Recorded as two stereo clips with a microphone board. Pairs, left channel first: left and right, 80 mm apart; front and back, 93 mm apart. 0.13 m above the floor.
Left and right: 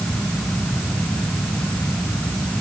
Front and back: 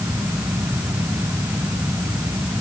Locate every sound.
Only background noise.